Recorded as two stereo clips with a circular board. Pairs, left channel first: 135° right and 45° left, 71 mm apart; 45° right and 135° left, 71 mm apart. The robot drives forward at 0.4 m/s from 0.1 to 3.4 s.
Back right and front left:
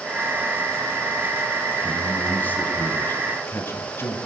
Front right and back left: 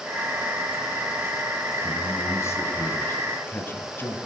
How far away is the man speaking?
About 1.9 m.